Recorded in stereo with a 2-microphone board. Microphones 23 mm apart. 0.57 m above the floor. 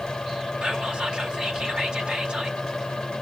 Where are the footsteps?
No footsteps in this recording.